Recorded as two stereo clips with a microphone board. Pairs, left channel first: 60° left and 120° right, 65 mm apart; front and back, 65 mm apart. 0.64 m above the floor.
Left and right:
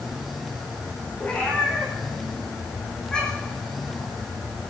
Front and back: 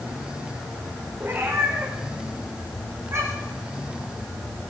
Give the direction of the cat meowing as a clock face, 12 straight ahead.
8 o'clock.